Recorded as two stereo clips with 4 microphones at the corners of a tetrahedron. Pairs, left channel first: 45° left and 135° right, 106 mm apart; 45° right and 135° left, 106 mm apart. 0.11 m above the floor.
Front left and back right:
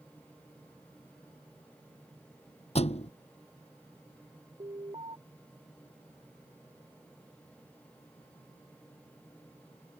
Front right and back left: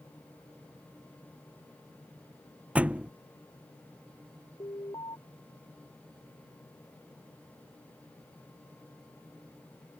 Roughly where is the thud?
Ahead left.